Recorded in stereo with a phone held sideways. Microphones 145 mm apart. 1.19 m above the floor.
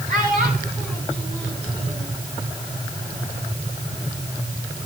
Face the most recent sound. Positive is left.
turn(degrees=-45)  # may be behind; listen again after turning